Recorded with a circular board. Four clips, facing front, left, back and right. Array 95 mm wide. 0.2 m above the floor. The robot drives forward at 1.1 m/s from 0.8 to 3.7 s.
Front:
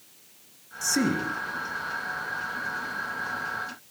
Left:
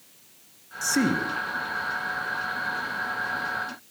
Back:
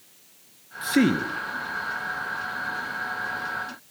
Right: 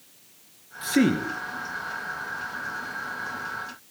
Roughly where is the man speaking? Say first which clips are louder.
Right 3 dB, back 5 dB; behind right.